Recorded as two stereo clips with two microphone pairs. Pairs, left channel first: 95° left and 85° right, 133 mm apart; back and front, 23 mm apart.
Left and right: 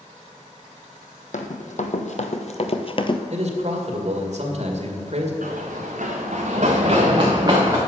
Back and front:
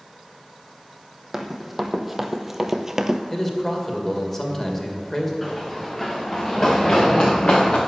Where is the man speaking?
110° right, 2 m.